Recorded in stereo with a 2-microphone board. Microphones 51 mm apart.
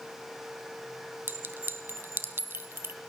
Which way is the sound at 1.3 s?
50° right (ahead or behind).